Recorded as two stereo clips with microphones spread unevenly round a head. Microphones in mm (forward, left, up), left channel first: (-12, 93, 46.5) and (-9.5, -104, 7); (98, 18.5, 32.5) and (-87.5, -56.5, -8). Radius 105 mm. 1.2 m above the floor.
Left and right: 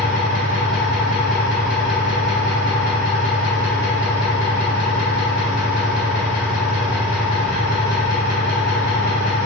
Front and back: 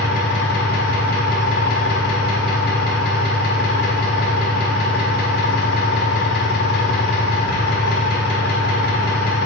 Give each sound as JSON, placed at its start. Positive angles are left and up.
{"t": 0.0, "sound": "an engine running", "azimuth_deg": 60, "distance_m": 2.0}